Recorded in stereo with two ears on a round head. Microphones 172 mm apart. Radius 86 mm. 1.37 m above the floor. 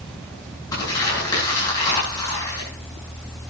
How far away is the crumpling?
About 9.5 m.